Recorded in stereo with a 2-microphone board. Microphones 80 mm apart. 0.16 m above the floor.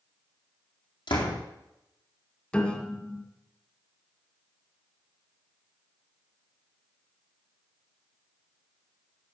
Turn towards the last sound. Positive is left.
turn(degrees=15)  # may be behind; listen again after turning